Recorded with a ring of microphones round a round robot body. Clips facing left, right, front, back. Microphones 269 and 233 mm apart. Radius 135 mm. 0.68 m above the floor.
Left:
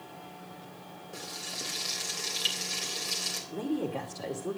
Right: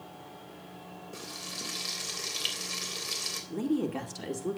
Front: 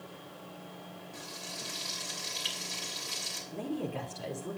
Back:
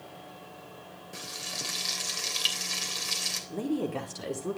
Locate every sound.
1.1 s frying: 170° right, 3 m
3.5 s a woman speaking: 145° right, 2 m